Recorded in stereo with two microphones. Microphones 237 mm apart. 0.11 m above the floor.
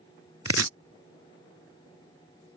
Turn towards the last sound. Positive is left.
turn(degrees=-80)